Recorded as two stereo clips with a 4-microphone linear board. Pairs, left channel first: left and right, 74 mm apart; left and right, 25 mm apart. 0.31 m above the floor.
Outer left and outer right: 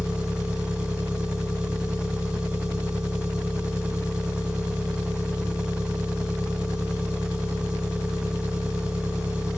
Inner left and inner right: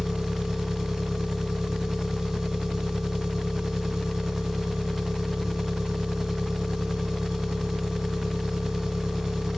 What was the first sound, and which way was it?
An engine running, 15° right (ahead or behind).